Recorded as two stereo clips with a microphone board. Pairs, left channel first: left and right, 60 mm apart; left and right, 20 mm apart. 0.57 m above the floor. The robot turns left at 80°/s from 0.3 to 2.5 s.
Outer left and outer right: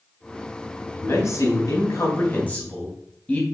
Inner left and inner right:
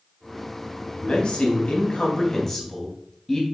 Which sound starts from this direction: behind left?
A man speaking, at 0.9 s.